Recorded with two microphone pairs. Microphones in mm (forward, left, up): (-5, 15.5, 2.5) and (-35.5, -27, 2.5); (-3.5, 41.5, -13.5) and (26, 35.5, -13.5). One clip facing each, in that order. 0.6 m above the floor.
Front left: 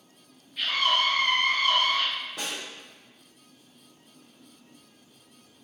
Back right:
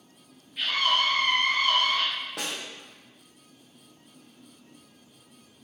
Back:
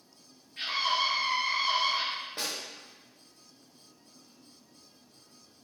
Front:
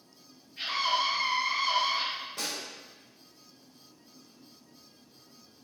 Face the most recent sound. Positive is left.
turn(degrees=-140)